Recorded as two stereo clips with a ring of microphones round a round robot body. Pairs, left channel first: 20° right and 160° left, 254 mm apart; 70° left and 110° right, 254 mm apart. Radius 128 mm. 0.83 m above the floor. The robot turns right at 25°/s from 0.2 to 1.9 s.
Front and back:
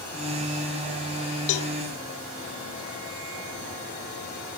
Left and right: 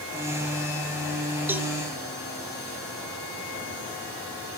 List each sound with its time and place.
1.5 s a cowbell: 30° right, 0.7 m; by 1.7 s 25° right, 0.7 m